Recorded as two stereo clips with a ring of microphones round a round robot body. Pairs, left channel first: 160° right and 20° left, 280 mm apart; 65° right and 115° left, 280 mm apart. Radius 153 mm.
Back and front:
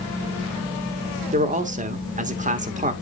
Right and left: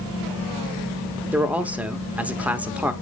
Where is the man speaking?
35° left, 1.3 m.